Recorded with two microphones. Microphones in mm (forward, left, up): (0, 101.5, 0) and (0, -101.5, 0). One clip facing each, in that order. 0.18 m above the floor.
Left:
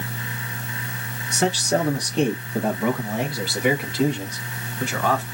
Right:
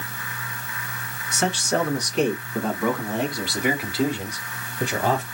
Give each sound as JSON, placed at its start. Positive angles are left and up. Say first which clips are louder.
{"t": 1.3, "sound": "a man speaking", "louder": "left 2 dB", "side_deg": 40, "distance_m": 1.8}